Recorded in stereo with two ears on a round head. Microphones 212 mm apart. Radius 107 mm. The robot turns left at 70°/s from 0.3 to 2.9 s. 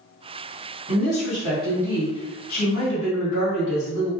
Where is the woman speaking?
150° right, 1.4 m; by 4.1 s 70° left, 1.4 m.